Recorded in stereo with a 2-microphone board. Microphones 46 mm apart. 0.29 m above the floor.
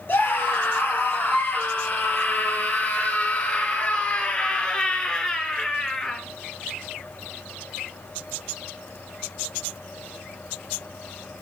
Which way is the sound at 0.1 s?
50° left (ahead or behind).